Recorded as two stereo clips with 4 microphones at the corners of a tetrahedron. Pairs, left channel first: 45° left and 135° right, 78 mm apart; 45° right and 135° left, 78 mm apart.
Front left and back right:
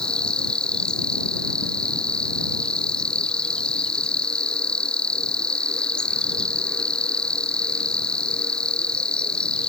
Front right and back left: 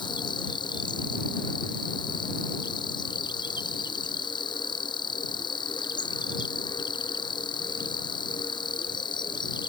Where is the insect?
35° right.